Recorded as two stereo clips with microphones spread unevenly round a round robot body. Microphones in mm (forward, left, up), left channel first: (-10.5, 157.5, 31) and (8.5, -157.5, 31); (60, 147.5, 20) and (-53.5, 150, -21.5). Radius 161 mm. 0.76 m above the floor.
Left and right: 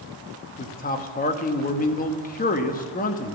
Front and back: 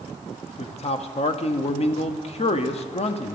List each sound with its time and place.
0.6 s a man speaking: 35° left, 1.1 m